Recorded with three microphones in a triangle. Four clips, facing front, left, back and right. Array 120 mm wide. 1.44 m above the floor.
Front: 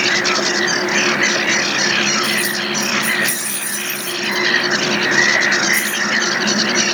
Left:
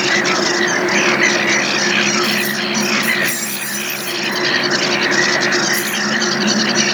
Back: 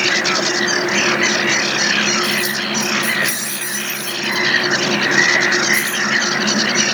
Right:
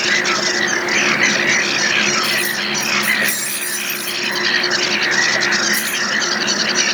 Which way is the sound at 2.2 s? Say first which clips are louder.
Left 3 dB, even; 135° left.